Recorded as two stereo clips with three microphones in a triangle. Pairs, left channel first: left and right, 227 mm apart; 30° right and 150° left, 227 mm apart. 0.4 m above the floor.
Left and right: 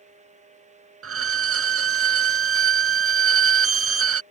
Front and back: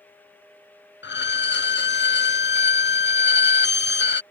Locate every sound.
1.0 s a violin: 75° right